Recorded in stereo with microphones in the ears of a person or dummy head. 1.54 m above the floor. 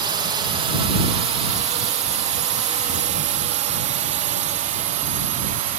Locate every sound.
0.0 s a drone: 25° right (ahead or behind); by 5.8 s 40° right (ahead or behind)